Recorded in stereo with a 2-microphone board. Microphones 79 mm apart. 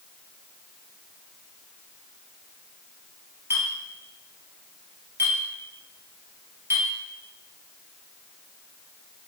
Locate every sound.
3.5 s a clink: 30° right (ahead or behind), 1.4 m